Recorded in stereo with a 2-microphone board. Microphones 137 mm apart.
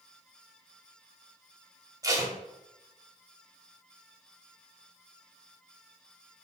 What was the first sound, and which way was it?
Tape being pulled, 25° right (ahead or behind).